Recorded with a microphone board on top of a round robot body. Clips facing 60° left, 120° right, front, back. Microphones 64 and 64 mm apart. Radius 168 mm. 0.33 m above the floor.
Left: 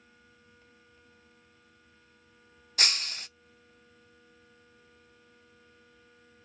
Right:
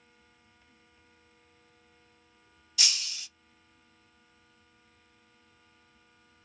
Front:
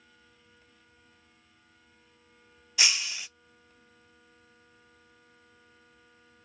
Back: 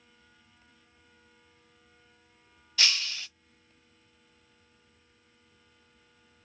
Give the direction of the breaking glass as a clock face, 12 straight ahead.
10 o'clock.